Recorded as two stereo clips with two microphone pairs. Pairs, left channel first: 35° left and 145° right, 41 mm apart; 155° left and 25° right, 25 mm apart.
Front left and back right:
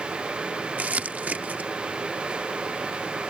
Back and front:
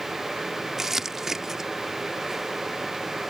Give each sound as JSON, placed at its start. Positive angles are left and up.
{"t": 0.8, "sound": "crumpling", "azimuth_deg": -100}